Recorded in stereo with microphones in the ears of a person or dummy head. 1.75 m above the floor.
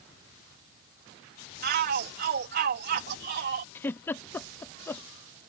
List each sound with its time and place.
1.6 s a shout: 50° right (ahead or behind)
3.8 s a giggle: 10° left (ahead or behind)